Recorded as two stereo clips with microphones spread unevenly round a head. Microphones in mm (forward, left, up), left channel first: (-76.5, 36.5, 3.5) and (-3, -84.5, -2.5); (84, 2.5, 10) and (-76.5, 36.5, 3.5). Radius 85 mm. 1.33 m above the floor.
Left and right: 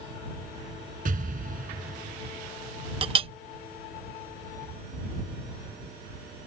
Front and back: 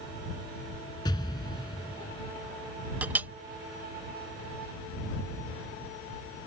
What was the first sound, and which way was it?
An explosion, 75° right.